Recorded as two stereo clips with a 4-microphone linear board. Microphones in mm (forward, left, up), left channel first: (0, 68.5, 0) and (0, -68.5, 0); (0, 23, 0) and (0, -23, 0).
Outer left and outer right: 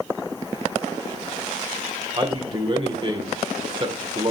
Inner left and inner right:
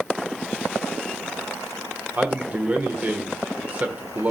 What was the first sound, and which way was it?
A man speaking, 40° right (ahead or behind).